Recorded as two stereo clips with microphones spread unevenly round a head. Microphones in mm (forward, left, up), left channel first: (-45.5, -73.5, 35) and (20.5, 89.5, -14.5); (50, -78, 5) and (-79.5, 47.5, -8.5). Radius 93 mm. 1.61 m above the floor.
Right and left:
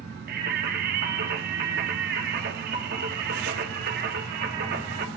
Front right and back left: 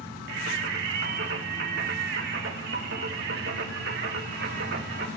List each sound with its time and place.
0.3 s singing: 105° left, 2 m